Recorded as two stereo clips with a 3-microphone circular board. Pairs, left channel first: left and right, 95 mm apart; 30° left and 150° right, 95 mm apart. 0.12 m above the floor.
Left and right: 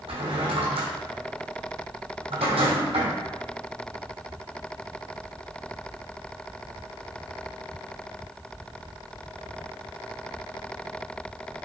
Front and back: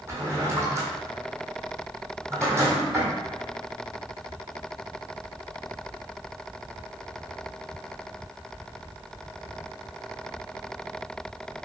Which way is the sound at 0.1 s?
85° right.